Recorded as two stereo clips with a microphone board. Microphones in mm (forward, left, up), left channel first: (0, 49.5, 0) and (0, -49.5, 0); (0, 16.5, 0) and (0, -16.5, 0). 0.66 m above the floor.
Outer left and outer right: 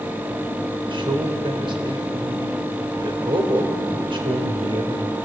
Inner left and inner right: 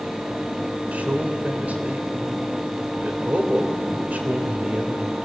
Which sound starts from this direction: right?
A man speaking, at 0.9 s.